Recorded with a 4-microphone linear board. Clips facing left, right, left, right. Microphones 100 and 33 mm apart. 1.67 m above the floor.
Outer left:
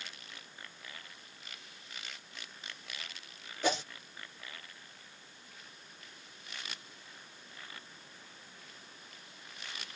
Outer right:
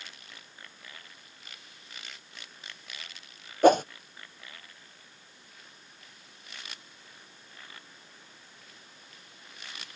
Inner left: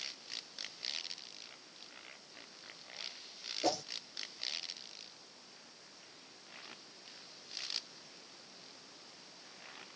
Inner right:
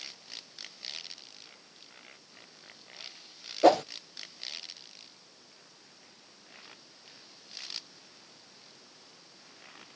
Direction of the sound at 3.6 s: 50° right (ahead or behind).